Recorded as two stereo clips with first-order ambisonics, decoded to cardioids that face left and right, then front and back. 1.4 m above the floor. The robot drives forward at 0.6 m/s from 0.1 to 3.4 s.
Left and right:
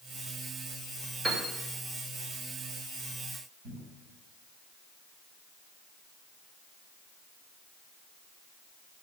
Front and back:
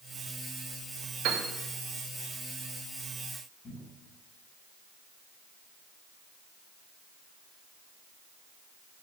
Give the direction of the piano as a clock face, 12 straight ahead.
5 o'clock.